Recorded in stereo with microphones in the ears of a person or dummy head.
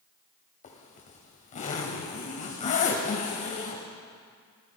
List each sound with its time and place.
0.6 s a zipper: 35° left (ahead or behind), 1.9 m